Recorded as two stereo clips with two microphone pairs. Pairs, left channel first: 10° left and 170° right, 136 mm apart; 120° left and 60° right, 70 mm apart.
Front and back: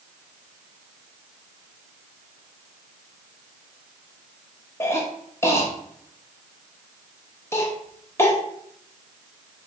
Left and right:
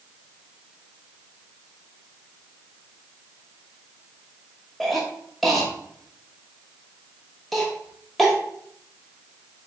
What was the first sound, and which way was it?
A cough, 40° left.